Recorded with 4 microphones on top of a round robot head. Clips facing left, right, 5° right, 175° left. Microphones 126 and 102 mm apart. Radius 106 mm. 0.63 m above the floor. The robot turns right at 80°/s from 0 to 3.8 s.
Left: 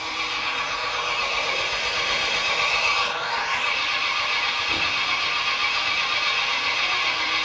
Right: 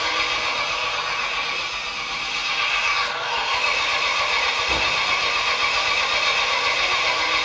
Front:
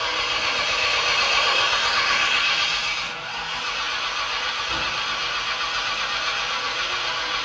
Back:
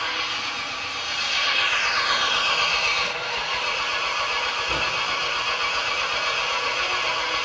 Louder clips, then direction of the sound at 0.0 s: Right 5 dB, front 3 dB; 75° right.